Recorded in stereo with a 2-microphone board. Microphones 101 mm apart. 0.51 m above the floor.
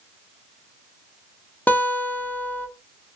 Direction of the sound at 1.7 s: 20° left (ahead or behind).